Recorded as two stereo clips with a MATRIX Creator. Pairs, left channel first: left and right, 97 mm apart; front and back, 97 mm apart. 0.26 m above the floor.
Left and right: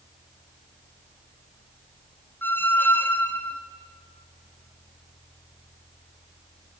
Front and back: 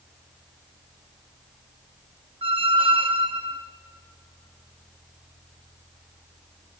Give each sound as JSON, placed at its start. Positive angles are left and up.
{"t": 2.4, "sound": "a squeak", "azimuth_deg": 160, "distance_m": 1.2}